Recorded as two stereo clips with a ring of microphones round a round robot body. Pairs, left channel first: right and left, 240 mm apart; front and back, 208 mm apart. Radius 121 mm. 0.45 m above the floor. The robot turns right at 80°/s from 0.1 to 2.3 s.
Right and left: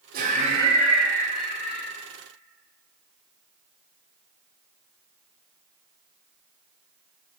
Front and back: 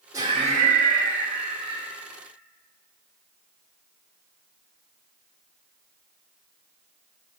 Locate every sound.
0.1 s laughter: 115° left, 1.1 m; by 1.9 s 110° right, 1.1 m